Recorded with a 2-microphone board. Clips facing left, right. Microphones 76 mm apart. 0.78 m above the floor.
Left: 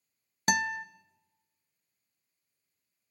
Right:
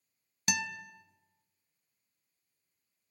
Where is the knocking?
I don't hear knocking.